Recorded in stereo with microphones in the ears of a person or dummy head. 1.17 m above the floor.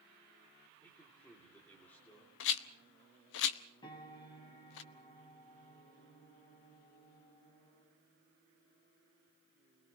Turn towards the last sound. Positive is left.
turn(degrees=30)  # may be behind; listen again after turning